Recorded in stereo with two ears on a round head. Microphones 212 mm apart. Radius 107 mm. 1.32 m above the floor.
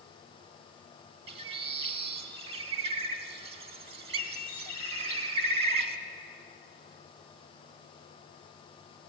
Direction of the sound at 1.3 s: 25° right (ahead or behind).